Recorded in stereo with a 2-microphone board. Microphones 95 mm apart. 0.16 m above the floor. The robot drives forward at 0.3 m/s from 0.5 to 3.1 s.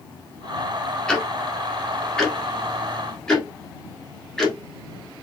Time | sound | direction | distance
1.1 | ticking | 10° left (ahead or behind) | 1.1 m